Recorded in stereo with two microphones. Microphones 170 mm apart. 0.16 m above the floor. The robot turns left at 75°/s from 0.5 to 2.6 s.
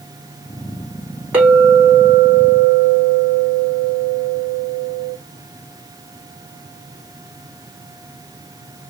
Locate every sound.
1.3 s a clink: 170° right, 3.5 m; by 5.2 s 95° left, 3.5 m